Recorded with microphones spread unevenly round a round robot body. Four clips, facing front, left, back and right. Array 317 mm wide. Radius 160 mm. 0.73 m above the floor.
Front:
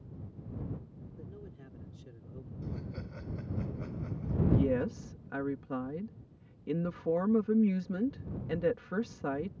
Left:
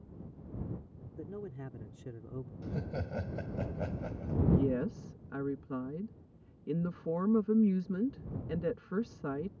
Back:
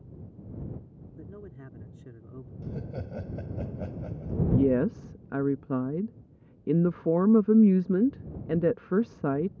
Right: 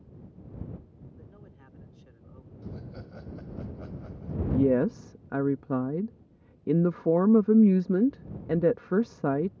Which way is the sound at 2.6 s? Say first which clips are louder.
Left 3 dB, back 5 dB; 145° left.